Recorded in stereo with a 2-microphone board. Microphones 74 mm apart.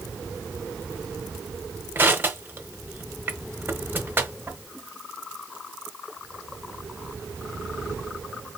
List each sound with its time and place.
1.9 s crushing: 25° right (ahead or behind), 1.1 m